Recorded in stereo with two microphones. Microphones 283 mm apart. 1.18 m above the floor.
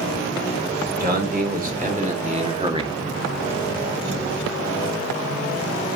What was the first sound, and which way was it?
A man speaking, 30° right (ahead or behind).